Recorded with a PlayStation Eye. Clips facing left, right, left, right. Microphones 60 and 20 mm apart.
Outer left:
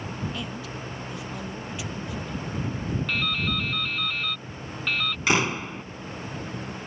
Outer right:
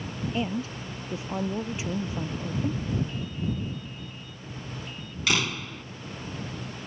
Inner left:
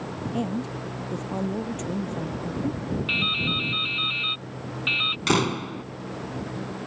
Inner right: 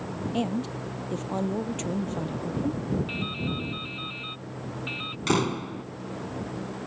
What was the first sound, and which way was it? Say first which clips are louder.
A woman speaking: outer right 4 dB, even; 30° right (ahead or behind).